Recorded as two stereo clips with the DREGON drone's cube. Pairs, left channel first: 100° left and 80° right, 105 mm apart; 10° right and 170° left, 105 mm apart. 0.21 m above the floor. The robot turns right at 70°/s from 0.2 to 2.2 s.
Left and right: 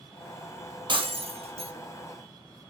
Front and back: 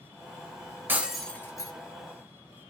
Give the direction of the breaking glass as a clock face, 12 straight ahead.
4 o'clock.